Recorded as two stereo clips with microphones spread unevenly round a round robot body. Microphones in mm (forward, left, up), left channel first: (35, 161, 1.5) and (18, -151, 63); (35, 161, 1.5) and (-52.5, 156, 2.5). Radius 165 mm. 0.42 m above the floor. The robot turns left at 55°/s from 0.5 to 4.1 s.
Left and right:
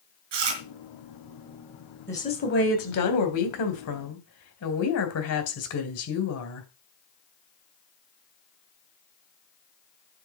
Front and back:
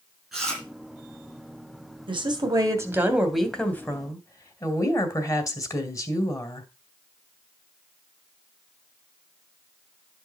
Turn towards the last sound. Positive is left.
turn(degrees=55)